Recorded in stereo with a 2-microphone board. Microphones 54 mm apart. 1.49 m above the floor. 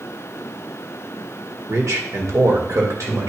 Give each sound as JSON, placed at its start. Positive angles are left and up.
{"t": 1.7, "sound": "a man speaking", "side_deg": -75, "distance_m": 1.7}